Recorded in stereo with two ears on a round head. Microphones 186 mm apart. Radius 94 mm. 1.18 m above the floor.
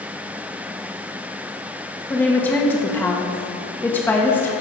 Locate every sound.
2.1 s a woman speaking: 10° left (ahead or behind), 1.9 m